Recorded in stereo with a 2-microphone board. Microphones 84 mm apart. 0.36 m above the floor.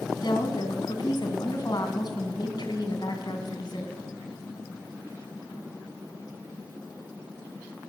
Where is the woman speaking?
55° left (ahead or behind), 3 m.